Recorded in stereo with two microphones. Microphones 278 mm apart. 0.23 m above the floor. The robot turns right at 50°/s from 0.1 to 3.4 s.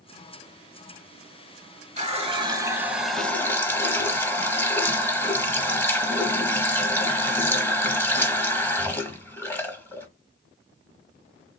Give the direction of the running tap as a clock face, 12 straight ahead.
2 o'clock.